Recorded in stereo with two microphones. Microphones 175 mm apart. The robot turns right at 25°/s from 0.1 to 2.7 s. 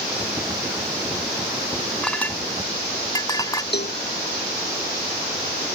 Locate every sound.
2.0 s a clink: 5° left (ahead or behind); by 3.6 s 20° left (ahead or behind)
3.7 s a cowbell: 75° left (ahead or behind)